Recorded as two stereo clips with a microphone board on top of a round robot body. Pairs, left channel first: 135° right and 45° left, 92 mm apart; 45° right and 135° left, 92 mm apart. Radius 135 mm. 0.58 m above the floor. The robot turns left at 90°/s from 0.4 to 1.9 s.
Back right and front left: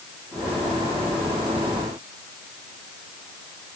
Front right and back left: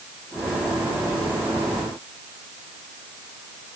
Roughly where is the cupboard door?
I don't hear a cupboard door.